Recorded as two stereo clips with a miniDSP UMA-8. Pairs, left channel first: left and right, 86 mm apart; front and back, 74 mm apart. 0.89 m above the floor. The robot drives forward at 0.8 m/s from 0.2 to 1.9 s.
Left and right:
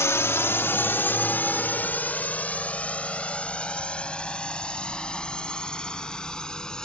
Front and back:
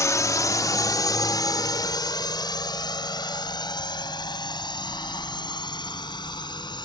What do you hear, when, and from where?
0.0 s a drone: 35° left; by 6.8 s 10° left